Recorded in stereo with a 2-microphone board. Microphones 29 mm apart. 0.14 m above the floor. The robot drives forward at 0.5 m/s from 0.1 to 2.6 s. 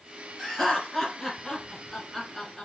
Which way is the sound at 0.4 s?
10° left (ahead or behind).